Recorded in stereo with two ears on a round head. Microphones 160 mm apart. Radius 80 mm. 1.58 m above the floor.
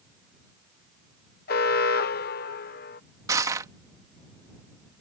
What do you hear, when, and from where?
1.5 s an alarm: 55° left (ahead or behind)
3.3 s crushing: 20° right (ahead or behind)